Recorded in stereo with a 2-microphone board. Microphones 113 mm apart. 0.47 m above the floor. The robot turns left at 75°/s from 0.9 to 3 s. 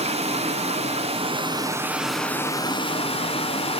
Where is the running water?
90° right, 0.9 m; by 3.8 s 115° left, 0.9 m.